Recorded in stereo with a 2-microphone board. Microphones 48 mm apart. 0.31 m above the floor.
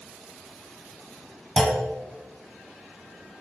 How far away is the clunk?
About 1.0 m.